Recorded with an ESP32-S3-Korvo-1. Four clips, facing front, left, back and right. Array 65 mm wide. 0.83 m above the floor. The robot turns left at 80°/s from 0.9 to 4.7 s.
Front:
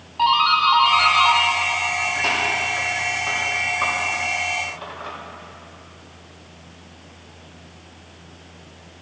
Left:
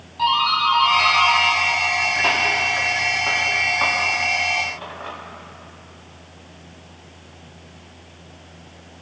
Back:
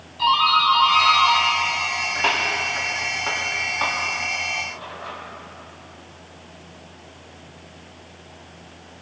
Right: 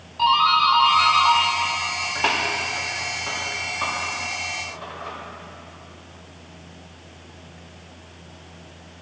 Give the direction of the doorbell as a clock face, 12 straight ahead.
12 o'clock.